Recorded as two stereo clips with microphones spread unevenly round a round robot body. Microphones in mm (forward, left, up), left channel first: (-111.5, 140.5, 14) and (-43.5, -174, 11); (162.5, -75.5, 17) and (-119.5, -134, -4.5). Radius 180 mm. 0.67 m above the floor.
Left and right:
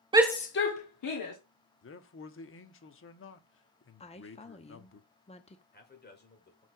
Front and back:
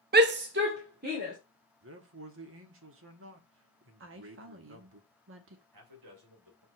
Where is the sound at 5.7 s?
160° left, 2.5 m.